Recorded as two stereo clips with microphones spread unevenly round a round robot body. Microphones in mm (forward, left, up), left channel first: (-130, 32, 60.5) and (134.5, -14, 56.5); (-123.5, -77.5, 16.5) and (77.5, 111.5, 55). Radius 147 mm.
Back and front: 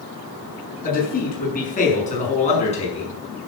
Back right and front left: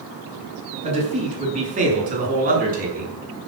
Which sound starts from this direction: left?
A man speaking, at 0.8 s.